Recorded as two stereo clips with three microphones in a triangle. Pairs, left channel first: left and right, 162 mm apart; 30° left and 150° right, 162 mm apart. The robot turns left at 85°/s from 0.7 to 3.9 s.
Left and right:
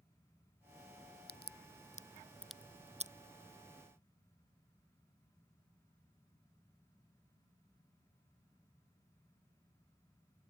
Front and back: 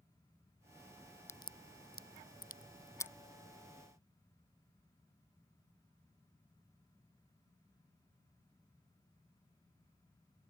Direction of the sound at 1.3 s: 105° left.